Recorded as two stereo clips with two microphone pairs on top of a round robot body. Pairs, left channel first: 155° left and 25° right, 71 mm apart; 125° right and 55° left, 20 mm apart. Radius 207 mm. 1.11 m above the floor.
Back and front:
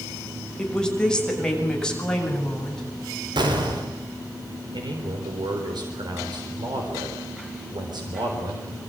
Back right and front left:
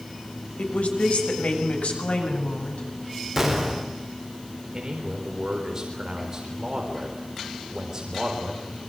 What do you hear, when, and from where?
0.6 s a woman speaking: 125° right, 6.5 m
3.4 s an explosion: 20° right, 4.5 m
4.7 s a man speaking: 5° right, 4 m